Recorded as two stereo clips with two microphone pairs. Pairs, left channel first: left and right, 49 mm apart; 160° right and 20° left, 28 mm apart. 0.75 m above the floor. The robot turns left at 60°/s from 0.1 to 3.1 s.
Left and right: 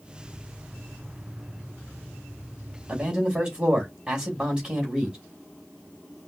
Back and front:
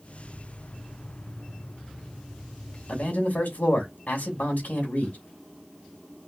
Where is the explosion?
No explosion in this recording.